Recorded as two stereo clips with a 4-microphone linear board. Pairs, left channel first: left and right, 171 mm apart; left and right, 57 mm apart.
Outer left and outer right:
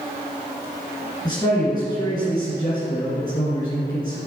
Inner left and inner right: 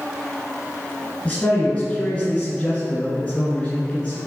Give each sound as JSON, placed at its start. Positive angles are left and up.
{"t": 1.2, "sound": "a man speaking", "side_deg": 25, "distance_m": 1.9}